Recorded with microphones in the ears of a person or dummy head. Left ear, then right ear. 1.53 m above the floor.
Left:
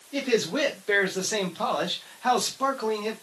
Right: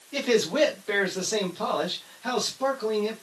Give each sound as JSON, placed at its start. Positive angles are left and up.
{"t": 0.1, "sound": "a man speaking", "side_deg": -25, "distance_m": 0.9}